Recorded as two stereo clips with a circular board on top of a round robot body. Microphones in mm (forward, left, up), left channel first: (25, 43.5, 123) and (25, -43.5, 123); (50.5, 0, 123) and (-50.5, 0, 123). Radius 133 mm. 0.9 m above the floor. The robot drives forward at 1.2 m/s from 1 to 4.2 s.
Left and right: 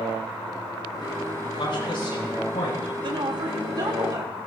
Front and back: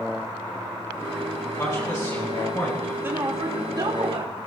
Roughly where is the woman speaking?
Behind right.